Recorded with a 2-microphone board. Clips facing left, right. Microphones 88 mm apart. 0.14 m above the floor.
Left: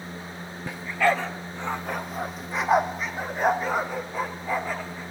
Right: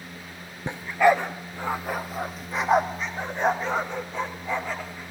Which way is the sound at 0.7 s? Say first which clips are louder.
Right 4 dB; 30° right (ahead or behind).